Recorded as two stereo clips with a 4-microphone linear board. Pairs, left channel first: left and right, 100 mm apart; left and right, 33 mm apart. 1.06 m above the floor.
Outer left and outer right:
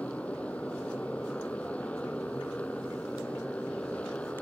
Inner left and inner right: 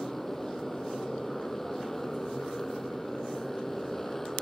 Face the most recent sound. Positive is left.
turn(degrees=10)  # may be behind; listen again after turning